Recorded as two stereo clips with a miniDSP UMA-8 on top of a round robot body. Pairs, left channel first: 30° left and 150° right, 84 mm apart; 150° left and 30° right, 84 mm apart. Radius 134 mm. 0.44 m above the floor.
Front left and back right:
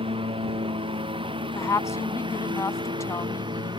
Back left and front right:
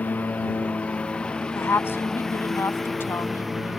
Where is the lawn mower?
135° right; by 3.8 s 120° right.